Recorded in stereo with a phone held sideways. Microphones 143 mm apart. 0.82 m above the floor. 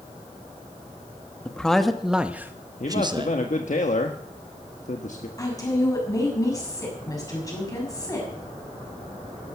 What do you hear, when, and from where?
1.4 s a man speaking: 5° left (ahead or behind), 1.5 m; by 3.4 s 40° right (ahead or behind), 0.9 m
2.8 s a man speaking: 60° left (ahead or behind), 1.3 m
5.4 s a woman speaking: 25° left (ahead or behind), 6 m